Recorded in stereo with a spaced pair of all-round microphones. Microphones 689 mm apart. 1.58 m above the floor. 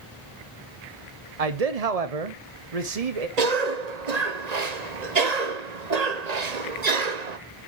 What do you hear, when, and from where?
1.4 s a man speaking: 60° right (ahead or behind), 1.0 m
3.4 s a cough: 70° right (ahead or behind), 1.3 m